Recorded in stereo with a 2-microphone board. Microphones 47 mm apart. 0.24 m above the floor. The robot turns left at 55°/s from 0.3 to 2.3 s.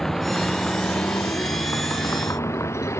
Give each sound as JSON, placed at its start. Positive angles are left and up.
{"t": 0.0, "sound": "a vehicle", "side_deg": 5}